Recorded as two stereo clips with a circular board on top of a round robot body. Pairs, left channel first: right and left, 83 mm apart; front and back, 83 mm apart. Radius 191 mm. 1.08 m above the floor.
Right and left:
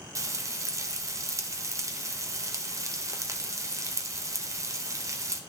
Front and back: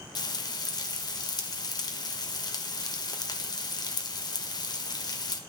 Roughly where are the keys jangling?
I don't hear keys jangling.